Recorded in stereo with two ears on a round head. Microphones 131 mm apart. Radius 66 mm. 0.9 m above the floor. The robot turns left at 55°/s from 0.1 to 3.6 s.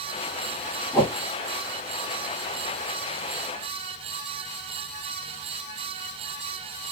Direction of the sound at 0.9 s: 10° left (ahead or behind).